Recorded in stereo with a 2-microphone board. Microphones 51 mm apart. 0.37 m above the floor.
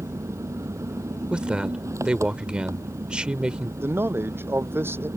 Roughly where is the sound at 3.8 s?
Right.